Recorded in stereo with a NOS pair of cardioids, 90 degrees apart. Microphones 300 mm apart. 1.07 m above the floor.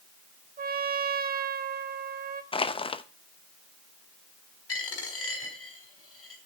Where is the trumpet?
30° right, 1.2 m.